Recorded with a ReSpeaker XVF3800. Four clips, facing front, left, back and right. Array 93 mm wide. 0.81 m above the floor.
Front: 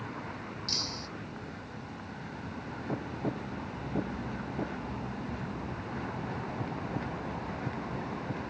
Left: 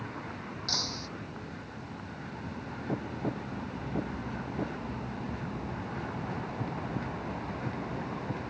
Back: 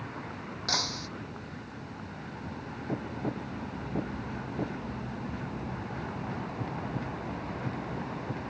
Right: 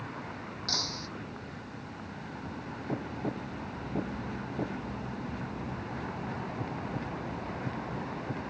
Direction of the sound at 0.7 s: Straight behind.